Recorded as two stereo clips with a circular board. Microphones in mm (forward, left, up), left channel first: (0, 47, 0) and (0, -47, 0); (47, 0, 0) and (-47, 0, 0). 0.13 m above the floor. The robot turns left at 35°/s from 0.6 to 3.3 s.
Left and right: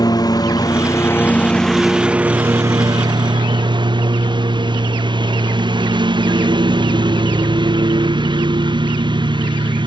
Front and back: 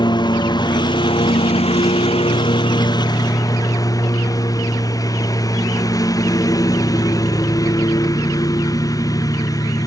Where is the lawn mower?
40° left; by 9.9 s 55° right.